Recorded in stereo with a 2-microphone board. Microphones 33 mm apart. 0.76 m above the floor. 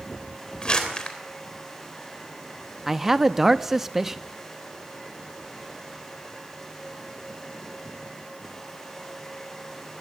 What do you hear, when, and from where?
0.6 s crumpling: 30° left (ahead or behind), 3.5 m
2.9 s a man speaking: 10° right (ahead or behind), 0.6 m